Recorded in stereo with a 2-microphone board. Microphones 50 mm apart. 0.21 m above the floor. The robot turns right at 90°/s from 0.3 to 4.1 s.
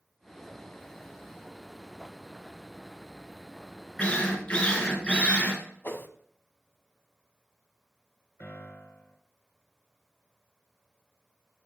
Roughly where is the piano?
Left.